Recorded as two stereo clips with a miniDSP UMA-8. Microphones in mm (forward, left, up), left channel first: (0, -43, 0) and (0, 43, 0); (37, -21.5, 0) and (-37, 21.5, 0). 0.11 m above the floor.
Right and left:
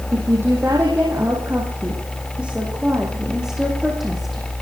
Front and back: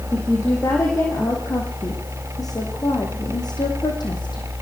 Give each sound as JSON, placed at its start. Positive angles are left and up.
{"t": 0.1, "sound": "a woman speaking", "azimuth_deg": 25, "distance_m": 5.5}